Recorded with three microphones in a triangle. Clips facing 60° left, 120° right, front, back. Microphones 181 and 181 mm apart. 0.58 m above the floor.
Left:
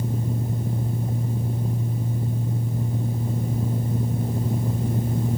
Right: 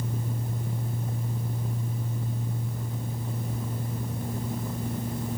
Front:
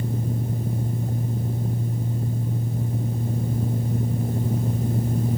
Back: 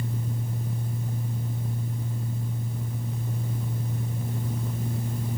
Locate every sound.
Only background noise.